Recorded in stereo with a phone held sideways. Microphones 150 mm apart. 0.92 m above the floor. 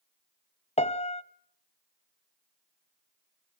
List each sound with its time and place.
0.8 s a piano: 45° left (ahead or behind), 0.7 m